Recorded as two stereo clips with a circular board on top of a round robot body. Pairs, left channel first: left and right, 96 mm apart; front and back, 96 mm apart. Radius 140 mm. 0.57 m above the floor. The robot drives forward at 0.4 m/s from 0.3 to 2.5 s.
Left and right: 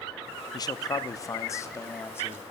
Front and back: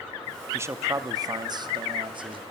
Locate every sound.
0.5 s a man speaking: 120° left, 0.9 m; by 2.4 s 155° left, 1.3 m